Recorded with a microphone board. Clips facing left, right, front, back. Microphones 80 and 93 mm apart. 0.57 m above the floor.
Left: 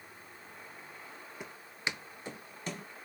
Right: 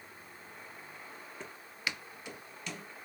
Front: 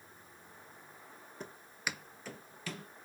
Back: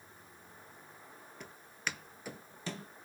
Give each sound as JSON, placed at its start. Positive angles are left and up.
{"t": 1.4, "sound": "footsteps", "azimuth_deg": 15, "distance_m": 0.6}